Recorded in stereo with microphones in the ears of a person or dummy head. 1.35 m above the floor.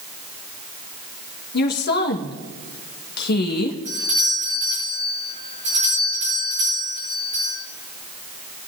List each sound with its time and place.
1.5 s a woman speaking: 55° left (ahead or behind), 1.2 m
3.9 s a doorbell: 35° right (ahead or behind), 6 m